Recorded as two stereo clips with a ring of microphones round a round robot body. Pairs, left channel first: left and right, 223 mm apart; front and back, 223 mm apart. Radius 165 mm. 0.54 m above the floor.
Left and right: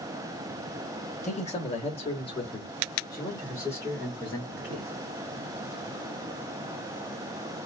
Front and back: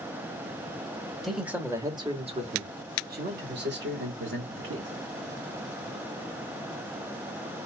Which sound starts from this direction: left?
A man speaking, at 1.2 s.